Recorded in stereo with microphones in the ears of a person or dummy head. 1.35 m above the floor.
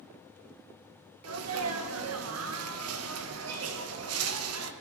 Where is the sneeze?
80° right, 1.6 m.